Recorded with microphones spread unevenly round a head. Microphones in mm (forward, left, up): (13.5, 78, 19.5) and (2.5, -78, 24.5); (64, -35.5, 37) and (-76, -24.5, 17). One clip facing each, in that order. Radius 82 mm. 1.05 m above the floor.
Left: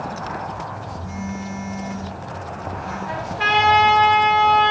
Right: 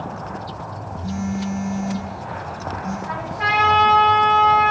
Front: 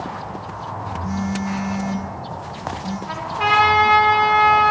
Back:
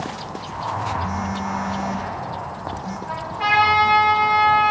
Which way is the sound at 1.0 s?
50° right.